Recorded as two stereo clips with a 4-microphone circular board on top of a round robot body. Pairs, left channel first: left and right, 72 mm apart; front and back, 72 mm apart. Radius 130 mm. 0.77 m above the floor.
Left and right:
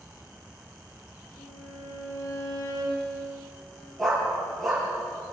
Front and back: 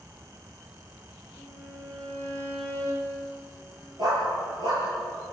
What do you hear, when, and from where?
1.4 s a violin: 65° left, 9.5 m
4.0 s a dog barking: 175° left, 8 m